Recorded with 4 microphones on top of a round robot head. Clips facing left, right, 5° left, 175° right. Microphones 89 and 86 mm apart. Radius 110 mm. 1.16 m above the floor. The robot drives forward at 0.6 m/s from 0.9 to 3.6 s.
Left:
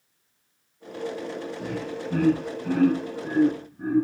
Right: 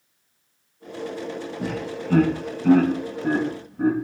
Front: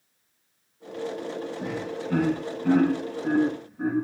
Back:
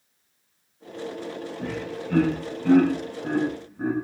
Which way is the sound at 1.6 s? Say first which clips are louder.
Right 4 dB, even; 75° right.